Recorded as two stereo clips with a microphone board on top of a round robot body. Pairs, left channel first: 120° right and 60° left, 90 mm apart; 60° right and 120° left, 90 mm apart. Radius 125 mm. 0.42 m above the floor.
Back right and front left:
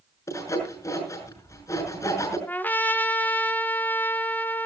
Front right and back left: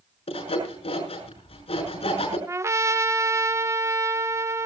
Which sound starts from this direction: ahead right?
Sawing, at 0.3 s.